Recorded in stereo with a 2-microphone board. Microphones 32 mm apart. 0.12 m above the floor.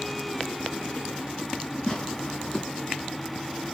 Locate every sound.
1.9 s tearing paper: 20° left (ahead or behind), 1.4 m